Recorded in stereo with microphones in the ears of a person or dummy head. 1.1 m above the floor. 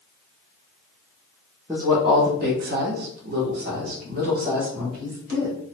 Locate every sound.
1.7 s a woman speaking: 10° right (ahead or behind), 0.6 m; by 5.6 s 45° right (ahead or behind), 2.0 m